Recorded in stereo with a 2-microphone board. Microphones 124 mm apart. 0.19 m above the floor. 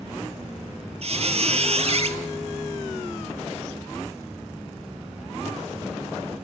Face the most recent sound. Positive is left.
turn(degrees=-60)  # may be behind; listen again after turning